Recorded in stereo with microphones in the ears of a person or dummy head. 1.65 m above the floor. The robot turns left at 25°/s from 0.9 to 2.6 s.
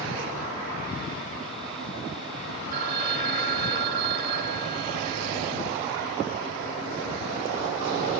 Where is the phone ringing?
55° right (ahead or behind), 1.1 m.